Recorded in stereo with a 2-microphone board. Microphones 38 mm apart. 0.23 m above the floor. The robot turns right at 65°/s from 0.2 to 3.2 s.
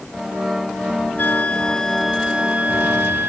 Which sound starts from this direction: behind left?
A flute, at 1.2 s.